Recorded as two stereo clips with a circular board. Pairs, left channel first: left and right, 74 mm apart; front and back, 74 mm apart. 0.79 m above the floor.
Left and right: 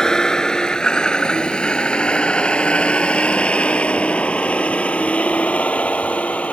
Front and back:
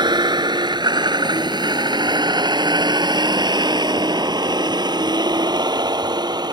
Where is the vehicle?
170° left; by 6.5 s 160° left.